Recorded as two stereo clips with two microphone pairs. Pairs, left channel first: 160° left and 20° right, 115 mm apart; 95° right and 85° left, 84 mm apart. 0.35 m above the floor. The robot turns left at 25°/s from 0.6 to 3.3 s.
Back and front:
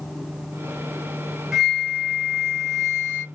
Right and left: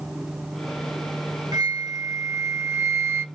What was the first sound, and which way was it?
A flute, 65° left.